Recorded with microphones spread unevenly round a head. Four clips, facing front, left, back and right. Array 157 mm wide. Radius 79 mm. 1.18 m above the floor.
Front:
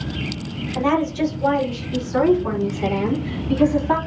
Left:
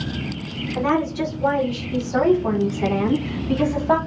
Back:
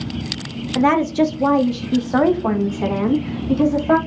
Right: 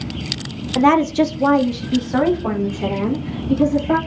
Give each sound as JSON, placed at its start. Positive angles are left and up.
{"t": 0.8, "sound": "a woman speaking", "azimuth_deg": -105, "distance_m": 0.7}